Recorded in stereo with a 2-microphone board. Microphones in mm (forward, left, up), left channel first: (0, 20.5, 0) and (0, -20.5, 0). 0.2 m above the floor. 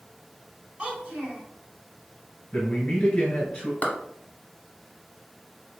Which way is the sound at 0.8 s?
25° right (ahead or behind).